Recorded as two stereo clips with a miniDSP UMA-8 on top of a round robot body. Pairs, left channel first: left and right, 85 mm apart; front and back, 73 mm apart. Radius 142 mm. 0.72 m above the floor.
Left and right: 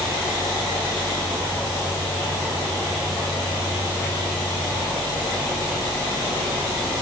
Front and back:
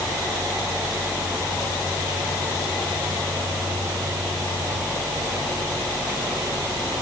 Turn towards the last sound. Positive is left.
No sound to turn to.